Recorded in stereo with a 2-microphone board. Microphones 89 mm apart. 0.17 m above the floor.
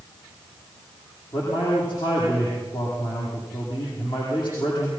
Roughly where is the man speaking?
Left.